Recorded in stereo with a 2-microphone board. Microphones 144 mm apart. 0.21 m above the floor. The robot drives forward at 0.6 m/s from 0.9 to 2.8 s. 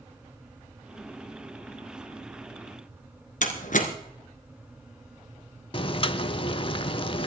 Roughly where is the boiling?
Left.